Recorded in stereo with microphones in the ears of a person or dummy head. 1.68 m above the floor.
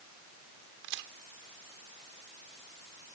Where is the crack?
65° right (ahead or behind).